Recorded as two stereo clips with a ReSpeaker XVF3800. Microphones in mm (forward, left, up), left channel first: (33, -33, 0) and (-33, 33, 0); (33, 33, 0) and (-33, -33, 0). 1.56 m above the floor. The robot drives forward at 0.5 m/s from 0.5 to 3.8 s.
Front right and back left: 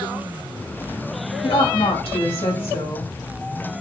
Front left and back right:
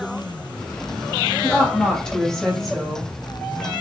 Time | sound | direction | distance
1.4 | a woman speaking | 35° right | 3 m